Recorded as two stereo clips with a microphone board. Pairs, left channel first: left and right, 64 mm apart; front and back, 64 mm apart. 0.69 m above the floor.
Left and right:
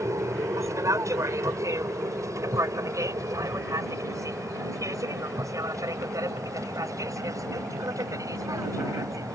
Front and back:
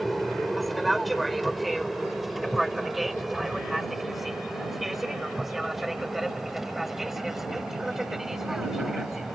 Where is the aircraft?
90° right; by 9.3 s 95° right.